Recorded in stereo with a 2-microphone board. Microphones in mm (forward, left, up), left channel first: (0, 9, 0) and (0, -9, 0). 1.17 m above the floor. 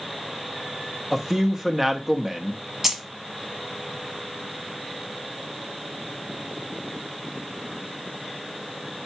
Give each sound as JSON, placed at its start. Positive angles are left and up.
{"t": 1.1, "sound": "a man speaking", "side_deg": -20, "distance_m": 0.8}
{"t": 2.8, "sound": "keys jangling", "side_deg": -25, "distance_m": 1.0}